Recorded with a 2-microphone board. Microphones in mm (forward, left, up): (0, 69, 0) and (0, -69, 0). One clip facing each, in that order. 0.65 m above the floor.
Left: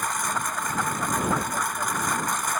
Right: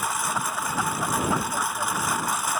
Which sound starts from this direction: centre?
A lawn mower, at 0.0 s.